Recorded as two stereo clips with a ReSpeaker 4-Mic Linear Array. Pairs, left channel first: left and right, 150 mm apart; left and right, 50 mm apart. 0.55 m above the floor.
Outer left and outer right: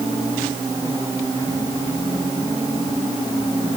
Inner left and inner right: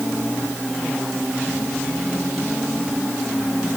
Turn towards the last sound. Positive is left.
No sound to turn to.